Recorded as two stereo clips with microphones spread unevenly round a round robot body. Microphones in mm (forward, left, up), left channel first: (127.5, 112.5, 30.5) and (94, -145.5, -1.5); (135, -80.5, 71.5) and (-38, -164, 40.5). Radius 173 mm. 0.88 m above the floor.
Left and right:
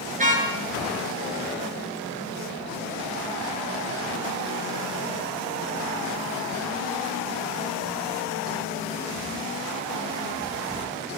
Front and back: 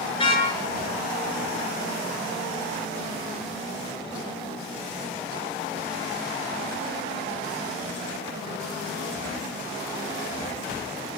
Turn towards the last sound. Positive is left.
turn(degrees=-35)